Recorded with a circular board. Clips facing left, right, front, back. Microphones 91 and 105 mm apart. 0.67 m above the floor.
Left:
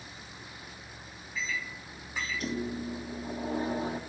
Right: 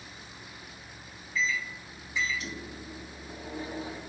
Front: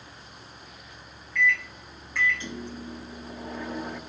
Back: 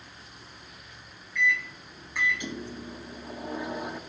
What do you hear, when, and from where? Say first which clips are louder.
1.4 s a microwave: right 5 dB, front 2 dB; 110° left, 0.7 m